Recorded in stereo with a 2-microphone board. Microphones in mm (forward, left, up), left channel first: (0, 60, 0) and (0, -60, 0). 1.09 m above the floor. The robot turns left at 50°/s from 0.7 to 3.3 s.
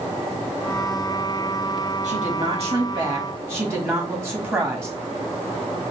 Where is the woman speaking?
95° right, 1.5 m; by 5.0 s 160° right, 1.5 m.